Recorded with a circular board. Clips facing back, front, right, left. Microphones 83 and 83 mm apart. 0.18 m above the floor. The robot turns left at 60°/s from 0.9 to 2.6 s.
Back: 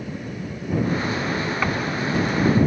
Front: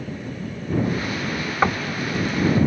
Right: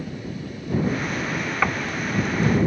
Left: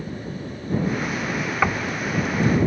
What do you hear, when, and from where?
1.6 s knocking: 15° left; by 1.9 s straight ahead